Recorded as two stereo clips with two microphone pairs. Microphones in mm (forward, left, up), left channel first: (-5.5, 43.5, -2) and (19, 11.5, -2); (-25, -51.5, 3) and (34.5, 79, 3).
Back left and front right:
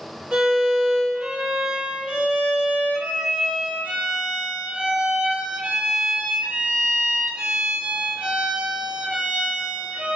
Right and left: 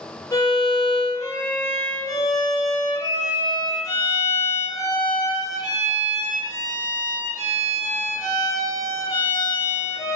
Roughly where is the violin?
Right.